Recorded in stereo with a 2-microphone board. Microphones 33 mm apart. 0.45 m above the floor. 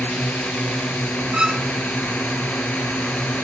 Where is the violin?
30° right (ahead or behind).